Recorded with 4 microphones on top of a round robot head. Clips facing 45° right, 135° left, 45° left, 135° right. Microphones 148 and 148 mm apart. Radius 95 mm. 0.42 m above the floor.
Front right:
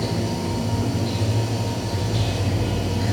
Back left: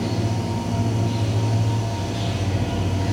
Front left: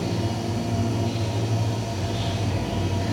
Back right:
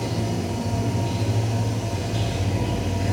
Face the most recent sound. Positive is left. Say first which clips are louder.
# even, even
turn(degrees=-90)